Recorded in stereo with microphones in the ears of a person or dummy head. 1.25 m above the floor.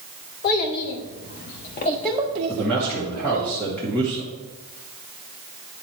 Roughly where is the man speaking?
Centre.